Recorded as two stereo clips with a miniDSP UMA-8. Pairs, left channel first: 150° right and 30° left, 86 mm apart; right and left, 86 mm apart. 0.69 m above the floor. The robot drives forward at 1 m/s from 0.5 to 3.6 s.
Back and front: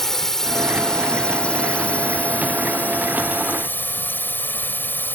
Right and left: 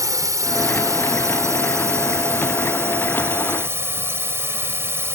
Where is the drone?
125° left; by 5.2 s 145° left.